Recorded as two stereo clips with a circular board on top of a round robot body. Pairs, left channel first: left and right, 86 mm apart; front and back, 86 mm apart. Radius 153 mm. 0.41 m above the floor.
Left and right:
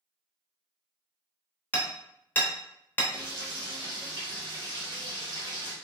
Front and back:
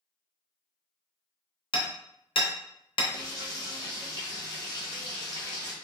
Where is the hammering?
20° left, 0.9 m.